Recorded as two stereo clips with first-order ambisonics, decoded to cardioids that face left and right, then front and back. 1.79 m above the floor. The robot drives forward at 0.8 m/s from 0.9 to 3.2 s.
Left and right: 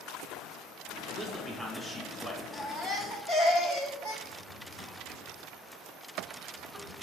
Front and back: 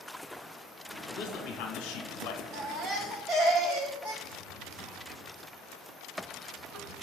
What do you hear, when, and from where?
1.1 s a man speaking: straight ahead, 2 m; by 2.4 s 5° left, 1.2 m
2.5 s a baby crying: 165° left, 1.5 m; by 4.1 s 170° left, 1.9 m
4.2 s a drawer: 160° right, 1.2 m